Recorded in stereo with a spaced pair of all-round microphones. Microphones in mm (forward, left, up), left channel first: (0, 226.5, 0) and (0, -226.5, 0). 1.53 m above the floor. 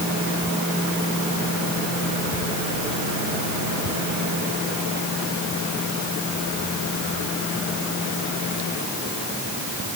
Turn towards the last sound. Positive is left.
No sound to turn to.